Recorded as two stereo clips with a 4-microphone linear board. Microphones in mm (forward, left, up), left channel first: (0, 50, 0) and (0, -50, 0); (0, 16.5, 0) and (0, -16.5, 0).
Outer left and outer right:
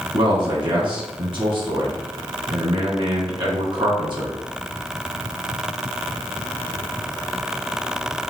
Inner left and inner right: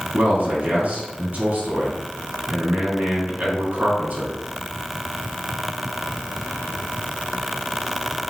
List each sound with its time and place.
0.1 s a man speaking: 55° right (ahead or behind), 2.5 m